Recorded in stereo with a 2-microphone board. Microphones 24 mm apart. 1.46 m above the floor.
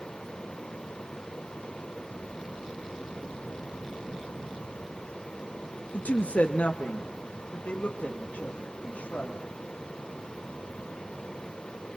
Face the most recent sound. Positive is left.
turn(degrees=70)  # may be behind; listen again after turning